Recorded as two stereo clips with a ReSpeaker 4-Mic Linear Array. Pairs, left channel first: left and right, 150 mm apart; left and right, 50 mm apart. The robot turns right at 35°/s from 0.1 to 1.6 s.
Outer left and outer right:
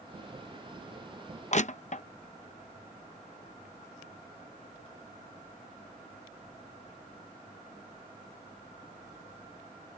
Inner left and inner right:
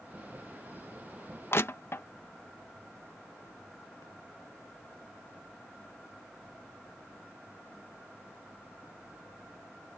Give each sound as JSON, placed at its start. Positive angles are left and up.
{"t": 1.5, "sound": "crushing", "side_deg": 50}